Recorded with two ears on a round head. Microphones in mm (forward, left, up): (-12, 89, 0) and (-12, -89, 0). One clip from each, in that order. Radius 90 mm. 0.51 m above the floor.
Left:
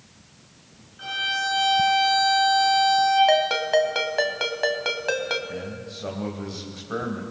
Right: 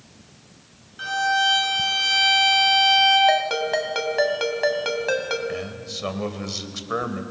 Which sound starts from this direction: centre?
A ringtone, at 3.3 s.